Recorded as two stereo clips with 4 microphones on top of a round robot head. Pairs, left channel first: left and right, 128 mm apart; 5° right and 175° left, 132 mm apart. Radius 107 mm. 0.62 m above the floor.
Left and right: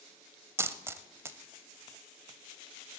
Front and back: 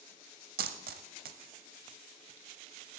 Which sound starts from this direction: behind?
A dropped coin, at 0.6 s.